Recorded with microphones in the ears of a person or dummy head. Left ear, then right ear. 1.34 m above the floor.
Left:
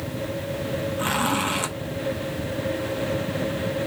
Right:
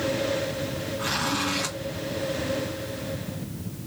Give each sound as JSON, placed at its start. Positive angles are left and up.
{"t": 1.0, "sound": "a zipper", "side_deg": 75, "distance_m": 1.0}